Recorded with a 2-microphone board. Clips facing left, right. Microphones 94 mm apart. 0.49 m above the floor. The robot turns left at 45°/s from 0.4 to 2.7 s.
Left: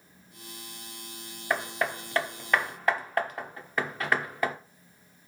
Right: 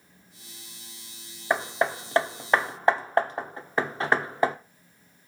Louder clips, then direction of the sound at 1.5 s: Right 4 dB; 20° right (ahead or behind).